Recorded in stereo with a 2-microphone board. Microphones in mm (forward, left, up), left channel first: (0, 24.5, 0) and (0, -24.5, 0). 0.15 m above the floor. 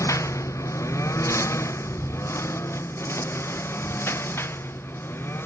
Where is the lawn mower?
80° left; by 5.5 s 50° left (ahead or behind).